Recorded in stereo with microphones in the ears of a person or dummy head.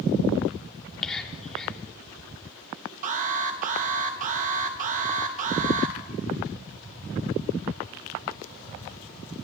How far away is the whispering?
About 3 m.